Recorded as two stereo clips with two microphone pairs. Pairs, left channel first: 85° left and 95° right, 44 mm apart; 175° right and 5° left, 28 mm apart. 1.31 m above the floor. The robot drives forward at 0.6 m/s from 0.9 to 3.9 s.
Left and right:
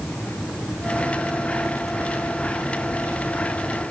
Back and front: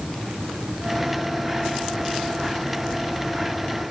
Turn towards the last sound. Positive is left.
No sound to turn to.